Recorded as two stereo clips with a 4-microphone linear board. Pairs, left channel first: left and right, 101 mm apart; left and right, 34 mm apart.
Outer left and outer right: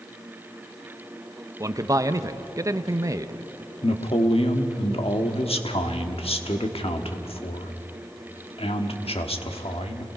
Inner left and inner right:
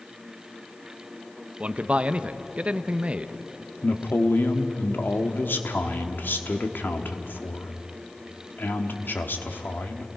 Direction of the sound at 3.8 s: 80° left.